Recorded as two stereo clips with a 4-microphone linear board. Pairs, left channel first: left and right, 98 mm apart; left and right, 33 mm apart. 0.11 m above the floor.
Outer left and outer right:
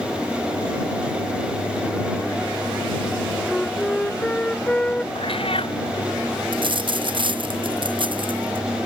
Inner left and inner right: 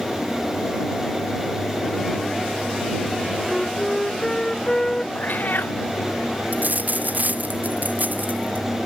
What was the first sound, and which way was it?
A flute, 10° left (ahead or behind).